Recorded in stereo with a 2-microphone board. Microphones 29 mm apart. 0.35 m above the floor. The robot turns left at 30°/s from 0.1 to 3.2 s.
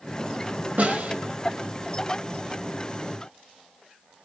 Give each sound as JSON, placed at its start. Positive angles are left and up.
{"t": 0.8, "sound": "a snare drum", "side_deg": -55, "distance_m": 0.6}